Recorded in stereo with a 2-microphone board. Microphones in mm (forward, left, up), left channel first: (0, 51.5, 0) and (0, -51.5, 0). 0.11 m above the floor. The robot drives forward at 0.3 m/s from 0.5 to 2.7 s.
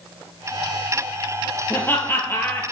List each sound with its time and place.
1.7 s laughter: 20° left (ahead or behind), 2 m